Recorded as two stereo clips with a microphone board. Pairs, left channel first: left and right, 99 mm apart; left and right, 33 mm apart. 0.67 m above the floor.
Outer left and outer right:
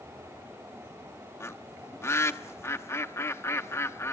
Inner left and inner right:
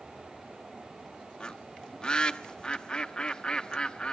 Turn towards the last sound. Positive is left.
turn(degrees=25)  # may be behind; listen again after turning